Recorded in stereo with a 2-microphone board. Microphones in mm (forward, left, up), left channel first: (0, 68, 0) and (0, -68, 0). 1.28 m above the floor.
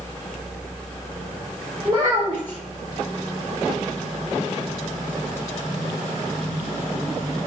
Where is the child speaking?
30° right (ahead or behind), 1.8 m.